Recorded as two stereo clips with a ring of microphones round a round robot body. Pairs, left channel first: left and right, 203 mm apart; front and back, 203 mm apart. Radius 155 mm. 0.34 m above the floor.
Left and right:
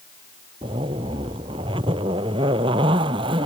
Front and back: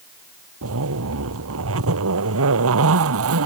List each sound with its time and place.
0.6 s a zipper: 165° right